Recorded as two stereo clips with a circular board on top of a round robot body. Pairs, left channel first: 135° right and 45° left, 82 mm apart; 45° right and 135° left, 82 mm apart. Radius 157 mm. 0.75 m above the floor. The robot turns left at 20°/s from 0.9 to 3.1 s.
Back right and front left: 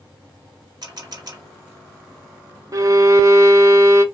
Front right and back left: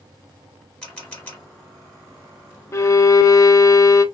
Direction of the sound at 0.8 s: 30° left.